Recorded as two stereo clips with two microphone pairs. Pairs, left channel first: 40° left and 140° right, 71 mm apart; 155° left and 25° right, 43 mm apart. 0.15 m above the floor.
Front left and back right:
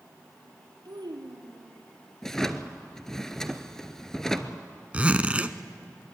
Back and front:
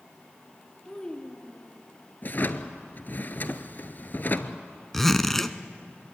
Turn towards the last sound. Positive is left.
turn(degrees=-135)